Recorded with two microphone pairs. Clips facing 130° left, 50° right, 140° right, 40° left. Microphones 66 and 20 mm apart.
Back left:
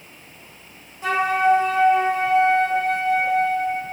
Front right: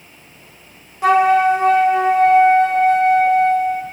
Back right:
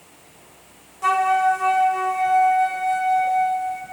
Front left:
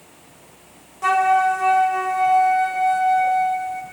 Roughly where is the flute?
Ahead right.